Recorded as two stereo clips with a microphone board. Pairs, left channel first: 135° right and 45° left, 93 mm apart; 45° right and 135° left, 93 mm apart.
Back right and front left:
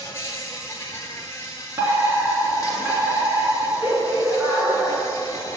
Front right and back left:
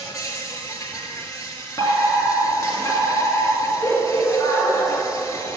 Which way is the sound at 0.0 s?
85° right.